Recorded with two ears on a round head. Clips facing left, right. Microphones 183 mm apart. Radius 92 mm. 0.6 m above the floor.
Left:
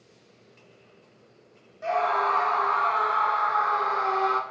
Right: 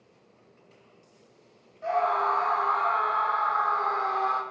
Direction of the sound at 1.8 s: 35° left (ahead or behind).